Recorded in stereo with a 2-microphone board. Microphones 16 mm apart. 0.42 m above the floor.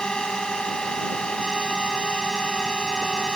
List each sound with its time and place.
0.0 s a drone: 65° left (ahead or behind)